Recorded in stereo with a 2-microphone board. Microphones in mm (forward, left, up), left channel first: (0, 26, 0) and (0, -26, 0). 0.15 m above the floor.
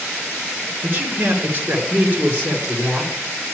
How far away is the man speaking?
About 2.5 m.